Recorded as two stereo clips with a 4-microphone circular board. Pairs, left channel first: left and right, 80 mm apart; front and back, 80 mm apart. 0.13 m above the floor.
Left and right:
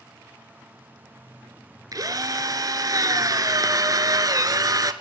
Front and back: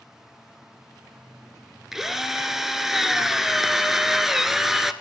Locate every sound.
1.9 s a drill: 95° right, 1.1 m